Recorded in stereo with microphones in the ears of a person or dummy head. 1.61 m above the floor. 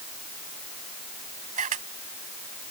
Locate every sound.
1.6 s a camera shutter: 40° right (ahead or behind)